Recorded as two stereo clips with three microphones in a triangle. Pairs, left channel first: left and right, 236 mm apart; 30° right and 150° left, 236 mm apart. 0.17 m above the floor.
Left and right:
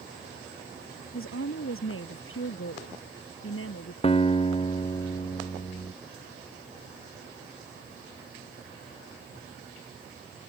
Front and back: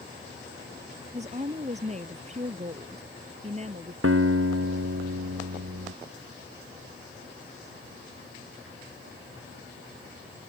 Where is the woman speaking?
95° left.